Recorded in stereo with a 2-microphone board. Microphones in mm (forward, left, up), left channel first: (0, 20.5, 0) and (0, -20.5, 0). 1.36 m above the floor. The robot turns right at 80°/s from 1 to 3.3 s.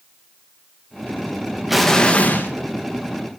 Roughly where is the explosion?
Ahead.